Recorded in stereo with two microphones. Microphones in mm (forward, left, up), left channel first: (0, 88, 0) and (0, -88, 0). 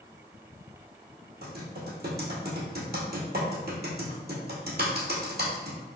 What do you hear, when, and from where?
1.4 s typing on a keyboard: 65° right (ahead or behind), 1.4 m